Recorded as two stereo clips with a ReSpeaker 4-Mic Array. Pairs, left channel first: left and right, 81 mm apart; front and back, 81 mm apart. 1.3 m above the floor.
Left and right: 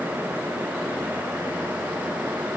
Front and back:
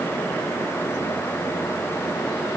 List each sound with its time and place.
Only background noise.